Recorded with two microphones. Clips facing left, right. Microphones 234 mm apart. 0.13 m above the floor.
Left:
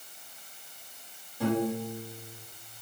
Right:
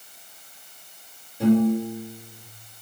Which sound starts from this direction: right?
A piano, at 1.4 s.